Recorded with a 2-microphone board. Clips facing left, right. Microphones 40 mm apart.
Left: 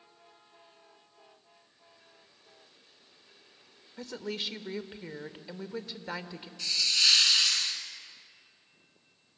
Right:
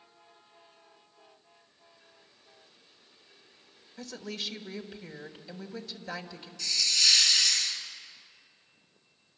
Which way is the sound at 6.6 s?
25° left (ahead or behind).